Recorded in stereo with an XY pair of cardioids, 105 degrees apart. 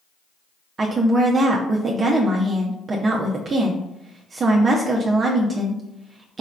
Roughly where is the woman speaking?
Ahead right.